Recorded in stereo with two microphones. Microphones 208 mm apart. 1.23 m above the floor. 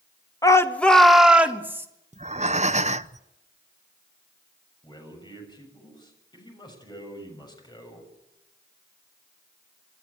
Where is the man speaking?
20° left (ahead or behind), 7 m.